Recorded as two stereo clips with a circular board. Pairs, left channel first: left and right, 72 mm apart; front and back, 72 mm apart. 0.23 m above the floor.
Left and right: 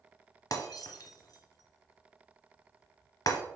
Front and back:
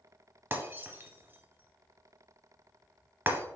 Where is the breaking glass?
120° left, 0.9 m.